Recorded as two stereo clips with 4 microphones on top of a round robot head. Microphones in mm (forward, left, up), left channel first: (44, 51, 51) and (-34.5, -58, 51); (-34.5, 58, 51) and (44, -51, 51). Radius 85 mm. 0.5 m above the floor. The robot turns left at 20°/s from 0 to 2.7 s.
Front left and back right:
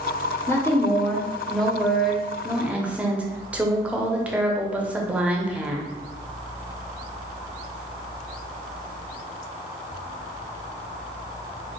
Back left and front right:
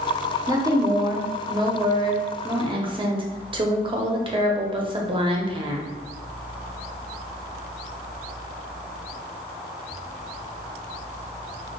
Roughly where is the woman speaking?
Ahead.